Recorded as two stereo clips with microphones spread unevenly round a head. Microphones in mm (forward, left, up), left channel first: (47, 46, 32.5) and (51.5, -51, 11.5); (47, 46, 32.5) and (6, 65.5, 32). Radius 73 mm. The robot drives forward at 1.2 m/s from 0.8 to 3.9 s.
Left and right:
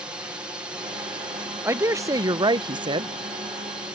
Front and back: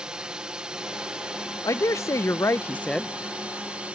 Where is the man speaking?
25° right; by 3.2 s 120° right.